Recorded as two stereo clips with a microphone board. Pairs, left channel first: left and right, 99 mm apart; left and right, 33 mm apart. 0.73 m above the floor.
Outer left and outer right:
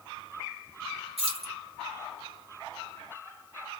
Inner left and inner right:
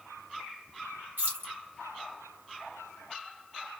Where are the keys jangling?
80° right, 1.5 m.